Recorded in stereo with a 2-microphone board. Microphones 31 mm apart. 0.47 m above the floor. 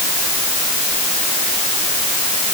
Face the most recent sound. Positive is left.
No sound to turn to.